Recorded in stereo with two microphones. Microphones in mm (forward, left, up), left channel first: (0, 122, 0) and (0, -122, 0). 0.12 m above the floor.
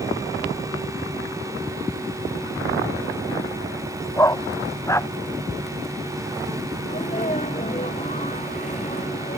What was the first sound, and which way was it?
A dog barking, 10° left (ahead or behind).